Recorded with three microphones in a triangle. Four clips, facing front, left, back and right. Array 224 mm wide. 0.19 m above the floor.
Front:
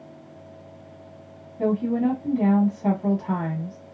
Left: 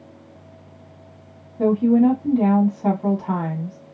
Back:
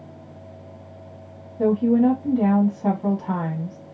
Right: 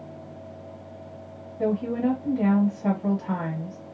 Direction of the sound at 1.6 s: 110° left.